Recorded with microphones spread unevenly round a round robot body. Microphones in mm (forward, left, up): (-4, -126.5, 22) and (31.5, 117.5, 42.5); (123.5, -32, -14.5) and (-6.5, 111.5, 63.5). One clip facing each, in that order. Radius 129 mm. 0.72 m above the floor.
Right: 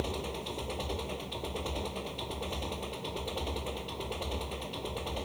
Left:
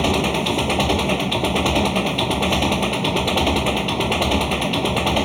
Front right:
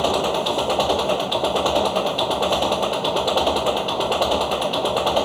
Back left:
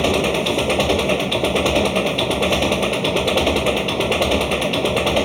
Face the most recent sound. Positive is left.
turn(degrees=75)